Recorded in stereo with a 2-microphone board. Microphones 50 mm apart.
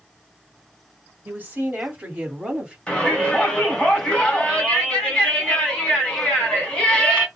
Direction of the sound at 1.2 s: 40° right (ahead or behind).